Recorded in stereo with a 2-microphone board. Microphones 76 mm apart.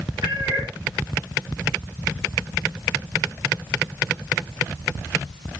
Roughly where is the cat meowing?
Right.